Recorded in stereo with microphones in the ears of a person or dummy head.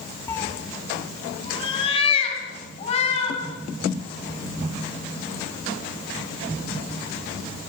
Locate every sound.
0.3 s a cat meowing: 15° left (ahead or behind), 1.2 m; by 3.4 s 40° left (ahead or behind), 5.5 m